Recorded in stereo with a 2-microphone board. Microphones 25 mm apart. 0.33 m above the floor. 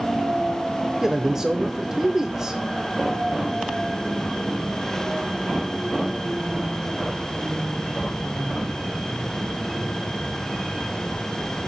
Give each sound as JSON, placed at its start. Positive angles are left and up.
{"t": 1.0, "sound": "a man speaking", "side_deg": -20, "distance_m": 1.0}